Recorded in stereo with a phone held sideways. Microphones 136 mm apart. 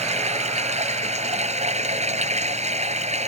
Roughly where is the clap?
No clap in this recording.